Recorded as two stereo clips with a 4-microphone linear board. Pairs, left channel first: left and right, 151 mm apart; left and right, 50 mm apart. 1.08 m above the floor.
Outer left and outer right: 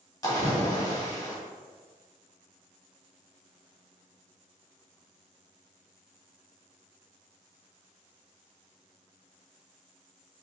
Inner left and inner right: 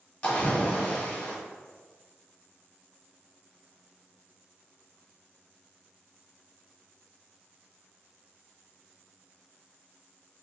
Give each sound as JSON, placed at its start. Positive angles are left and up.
{"t": 0.2, "sound": "a splash", "side_deg": 25, "distance_m": 1.4}